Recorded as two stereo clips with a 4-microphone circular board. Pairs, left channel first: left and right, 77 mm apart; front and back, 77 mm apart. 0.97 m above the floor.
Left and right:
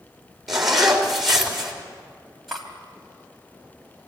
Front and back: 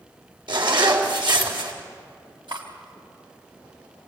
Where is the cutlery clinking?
Straight behind, 3.5 m.